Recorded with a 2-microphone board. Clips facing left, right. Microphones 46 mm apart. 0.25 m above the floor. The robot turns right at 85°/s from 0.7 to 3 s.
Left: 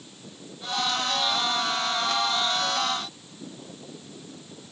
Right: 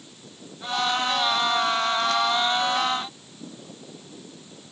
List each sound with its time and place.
Only background noise.